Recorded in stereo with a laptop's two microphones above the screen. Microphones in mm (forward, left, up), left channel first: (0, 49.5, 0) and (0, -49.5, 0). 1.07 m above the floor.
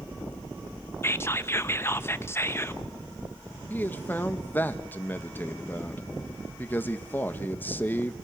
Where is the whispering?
25° left (ahead or behind), 1.0 m.